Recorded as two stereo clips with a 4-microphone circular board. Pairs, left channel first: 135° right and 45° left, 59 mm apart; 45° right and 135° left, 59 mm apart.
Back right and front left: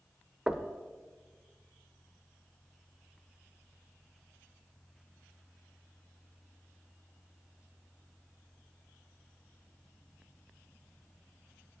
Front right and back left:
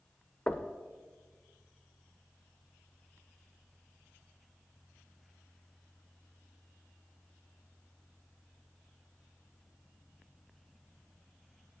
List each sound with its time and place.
0.5 s knocking: 15° right, 0.6 m